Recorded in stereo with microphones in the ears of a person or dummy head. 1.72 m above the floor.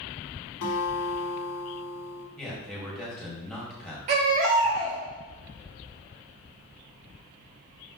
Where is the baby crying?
35° right (ahead or behind), 1.2 m.